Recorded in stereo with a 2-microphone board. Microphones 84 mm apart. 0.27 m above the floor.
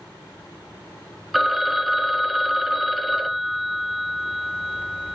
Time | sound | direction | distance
1.3 | a phone ringing | centre (ahead or behind) | 0.7 m